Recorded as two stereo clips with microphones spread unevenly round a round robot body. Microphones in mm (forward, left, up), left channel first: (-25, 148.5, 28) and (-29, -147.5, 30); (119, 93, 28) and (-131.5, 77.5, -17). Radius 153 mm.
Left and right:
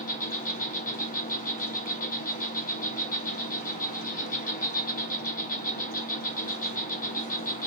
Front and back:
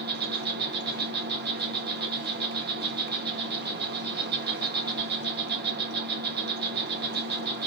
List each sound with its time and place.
0.0 s an insect: 150° left, 1.1 m